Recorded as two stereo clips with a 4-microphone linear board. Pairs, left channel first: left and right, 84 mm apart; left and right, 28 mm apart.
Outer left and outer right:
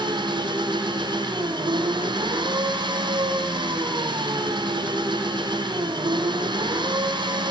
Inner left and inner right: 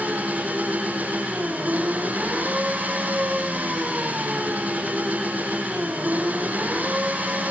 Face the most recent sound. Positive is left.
turn(degrees=-65)  # may be behind; listen again after turning